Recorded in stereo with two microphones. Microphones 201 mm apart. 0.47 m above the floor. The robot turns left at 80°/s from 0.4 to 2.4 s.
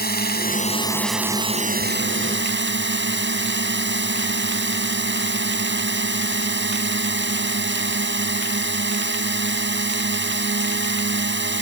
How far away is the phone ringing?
No phone ringing in this recording.